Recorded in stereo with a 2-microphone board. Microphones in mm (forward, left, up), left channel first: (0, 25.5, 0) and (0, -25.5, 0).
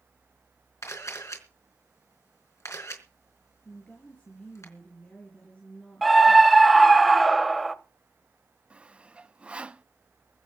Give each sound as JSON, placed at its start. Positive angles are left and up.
{"t": 0.8, "sound": "a camera shutter", "side_deg": 70, "distance_m": 4.0}
{"t": 3.6, "sound": "a woman speaking", "side_deg": 25, "distance_m": 4.0}
{"t": 6.0, "sound": "a scream", "side_deg": 0, "distance_m": 1.0}
{"t": 8.7, "sound": "sawing", "side_deg": -25, "distance_m": 0.5}